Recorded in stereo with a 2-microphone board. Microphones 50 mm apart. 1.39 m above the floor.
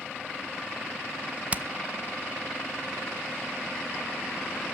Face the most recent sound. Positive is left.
turn(degrees=-30)  # may be behind; listen again after turning